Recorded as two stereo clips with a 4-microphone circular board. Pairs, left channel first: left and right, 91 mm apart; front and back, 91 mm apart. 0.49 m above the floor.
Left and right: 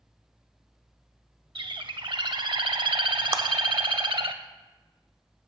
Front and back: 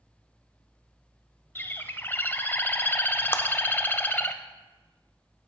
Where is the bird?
65° right, 0.5 m.